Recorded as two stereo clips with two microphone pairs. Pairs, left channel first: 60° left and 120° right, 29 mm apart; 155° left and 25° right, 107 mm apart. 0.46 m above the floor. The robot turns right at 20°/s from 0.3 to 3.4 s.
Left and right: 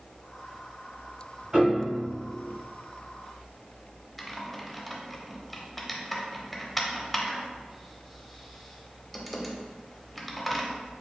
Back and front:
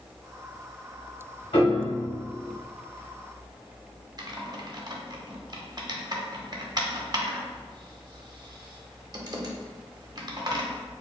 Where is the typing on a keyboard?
20° right, 0.7 m.